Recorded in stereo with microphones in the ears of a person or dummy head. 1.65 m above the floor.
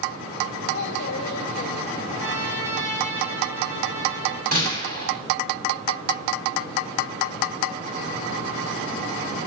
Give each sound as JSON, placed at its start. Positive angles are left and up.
{"t": 0.7, "sound": "a child speaking", "side_deg": 45, "distance_m": 4.5}
{"t": 2.1, "sound": "a trumpet", "side_deg": 5, "distance_m": 3.0}
{"t": 4.5, "sound": "a gunshot", "side_deg": -50, "distance_m": 6.5}